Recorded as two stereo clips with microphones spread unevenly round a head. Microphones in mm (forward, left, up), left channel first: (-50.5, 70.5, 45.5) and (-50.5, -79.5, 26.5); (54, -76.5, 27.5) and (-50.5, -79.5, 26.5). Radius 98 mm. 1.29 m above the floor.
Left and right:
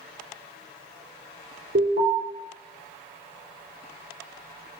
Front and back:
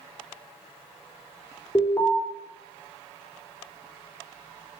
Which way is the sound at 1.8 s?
60° right.